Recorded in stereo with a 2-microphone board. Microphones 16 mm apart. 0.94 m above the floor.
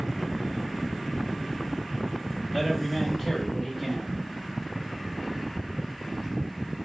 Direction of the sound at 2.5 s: 25° right (ahead or behind).